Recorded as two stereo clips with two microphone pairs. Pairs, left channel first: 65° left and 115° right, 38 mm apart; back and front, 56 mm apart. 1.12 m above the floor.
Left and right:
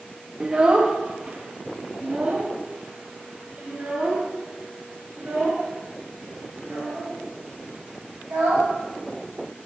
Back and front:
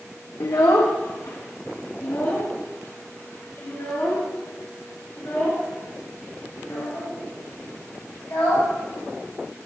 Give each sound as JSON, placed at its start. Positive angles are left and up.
{"t": 0.4, "sound": "a child speaking", "azimuth_deg": -175, "distance_m": 0.6}